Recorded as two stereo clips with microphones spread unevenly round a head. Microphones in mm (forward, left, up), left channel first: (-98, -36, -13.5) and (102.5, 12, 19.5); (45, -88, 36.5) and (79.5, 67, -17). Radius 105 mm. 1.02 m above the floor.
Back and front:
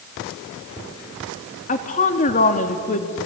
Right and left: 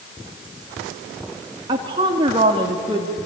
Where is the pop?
I don't hear a pop.